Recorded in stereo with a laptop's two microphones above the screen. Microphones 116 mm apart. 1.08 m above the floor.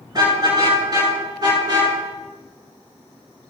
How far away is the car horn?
About 6.5 m.